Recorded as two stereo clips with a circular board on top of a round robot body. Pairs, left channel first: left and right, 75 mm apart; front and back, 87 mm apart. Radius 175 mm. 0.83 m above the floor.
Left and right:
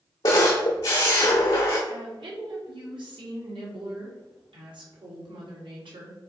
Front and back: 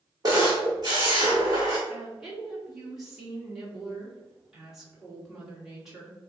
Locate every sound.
0.2 s a camera shutter: 130° left, 0.6 m
1.9 s a woman speaking: 95° right, 2.5 m